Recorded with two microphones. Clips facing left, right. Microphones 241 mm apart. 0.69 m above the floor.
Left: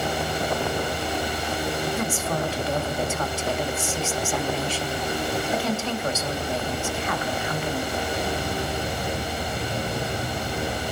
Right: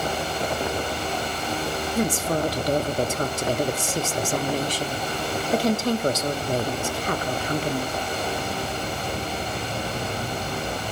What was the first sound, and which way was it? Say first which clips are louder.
A woman speaking: right 3 dB; 40° right (ahead or behind).